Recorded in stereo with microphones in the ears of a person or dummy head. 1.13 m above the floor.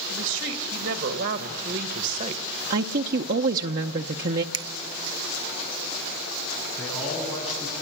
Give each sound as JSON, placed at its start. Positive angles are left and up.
{"t": 0.1, "sound": "a woman speaking", "side_deg": -70, "distance_m": 2.0}
{"t": 2.7, "sound": "a woman speaking", "side_deg": -50, "distance_m": 0.8}
{"t": 4.5, "sound": "a finger snap", "side_deg": -25, "distance_m": 0.6}
{"t": 6.8, "sound": "a man speaking", "side_deg": 15, "distance_m": 9.5}